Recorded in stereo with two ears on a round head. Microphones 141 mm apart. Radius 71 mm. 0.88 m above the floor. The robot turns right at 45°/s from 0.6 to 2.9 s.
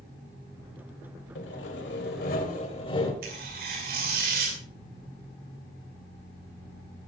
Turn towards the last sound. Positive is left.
turn(degrees=-65)  # may be behind; listen again after turning